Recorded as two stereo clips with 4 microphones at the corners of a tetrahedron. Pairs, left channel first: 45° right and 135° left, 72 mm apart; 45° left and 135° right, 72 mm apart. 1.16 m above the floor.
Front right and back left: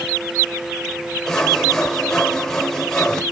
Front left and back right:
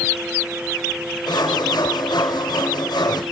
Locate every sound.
1.3 s sawing: 40° left, 2.5 m